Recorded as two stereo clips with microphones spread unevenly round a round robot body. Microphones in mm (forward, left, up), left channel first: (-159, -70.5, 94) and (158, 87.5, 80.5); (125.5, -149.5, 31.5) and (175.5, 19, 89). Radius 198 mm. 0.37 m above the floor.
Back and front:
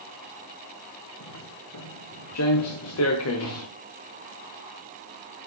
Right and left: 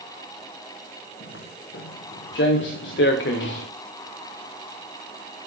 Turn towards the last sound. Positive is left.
turn(degrees=-100)